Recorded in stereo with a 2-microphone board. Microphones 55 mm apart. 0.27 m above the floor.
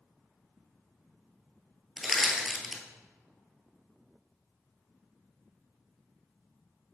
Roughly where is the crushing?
Centre.